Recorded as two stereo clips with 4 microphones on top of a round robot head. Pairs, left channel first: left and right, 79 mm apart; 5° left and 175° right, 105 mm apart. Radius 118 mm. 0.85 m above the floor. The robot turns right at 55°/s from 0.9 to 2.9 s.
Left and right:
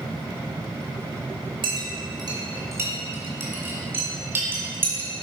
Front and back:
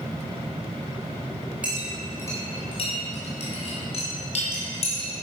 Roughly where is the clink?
Right.